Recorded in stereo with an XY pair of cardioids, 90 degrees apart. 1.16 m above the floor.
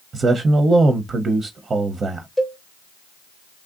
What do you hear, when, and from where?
0.1 s a man speaking: 45° right, 0.6 m
2.4 s a cowbell: 10° left, 0.7 m